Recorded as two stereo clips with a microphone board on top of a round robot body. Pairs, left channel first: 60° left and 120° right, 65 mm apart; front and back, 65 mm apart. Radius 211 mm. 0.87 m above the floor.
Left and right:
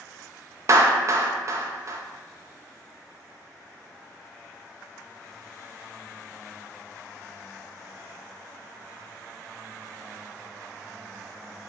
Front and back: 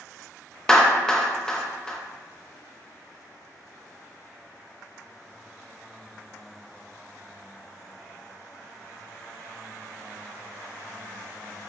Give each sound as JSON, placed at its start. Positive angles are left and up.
{"t": 0.7, "sound": "a clap", "azimuth_deg": -80, "distance_m": 0.7}